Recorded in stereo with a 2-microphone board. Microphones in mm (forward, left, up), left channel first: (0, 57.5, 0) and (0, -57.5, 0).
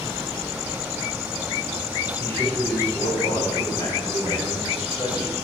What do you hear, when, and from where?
2.2 s a man speaking: 25° left (ahead or behind), 9 m; by 5.3 s 40° left (ahead or behind), 10.5 m